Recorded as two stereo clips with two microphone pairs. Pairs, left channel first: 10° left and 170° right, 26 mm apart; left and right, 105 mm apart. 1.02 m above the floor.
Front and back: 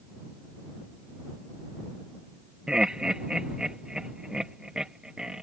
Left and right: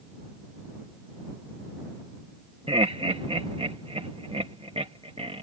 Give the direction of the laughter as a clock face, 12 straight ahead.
4 o'clock.